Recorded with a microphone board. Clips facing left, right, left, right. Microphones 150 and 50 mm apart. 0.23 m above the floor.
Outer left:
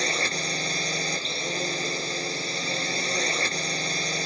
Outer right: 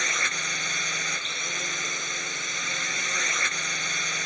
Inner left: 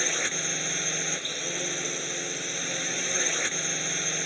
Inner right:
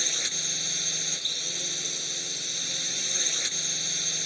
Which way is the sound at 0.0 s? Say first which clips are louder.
Outer left 5 dB, inner left 5 dB; 35° left (ahead or behind).